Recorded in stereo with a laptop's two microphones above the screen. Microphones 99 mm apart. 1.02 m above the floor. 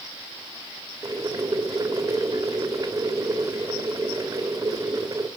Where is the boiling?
35° right (ahead or behind), 1.7 m.